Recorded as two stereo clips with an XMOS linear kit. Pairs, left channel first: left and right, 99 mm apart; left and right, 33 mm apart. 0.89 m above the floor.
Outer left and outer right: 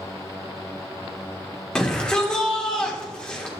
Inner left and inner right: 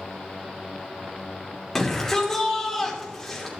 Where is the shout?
10° left (ahead or behind), 3 m.